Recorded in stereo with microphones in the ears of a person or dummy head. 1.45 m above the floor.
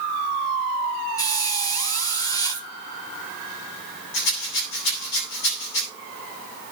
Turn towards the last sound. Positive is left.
turn(degrees=65)  # may be behind; listen again after turning